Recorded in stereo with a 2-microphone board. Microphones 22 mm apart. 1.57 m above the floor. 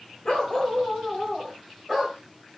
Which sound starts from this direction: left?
A dog barking, at 0.2 s.